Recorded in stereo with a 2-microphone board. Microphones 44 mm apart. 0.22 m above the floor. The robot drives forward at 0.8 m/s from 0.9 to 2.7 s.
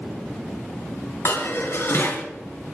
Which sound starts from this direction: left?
Dishes clattering, at 1.2 s.